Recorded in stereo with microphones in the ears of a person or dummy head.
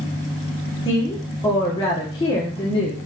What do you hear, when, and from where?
0.8 s a woman speaking: 20° left (ahead or behind), 1.1 m